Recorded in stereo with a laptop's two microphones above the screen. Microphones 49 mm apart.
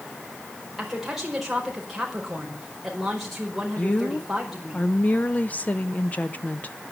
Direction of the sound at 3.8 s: 35° left (ahead or behind).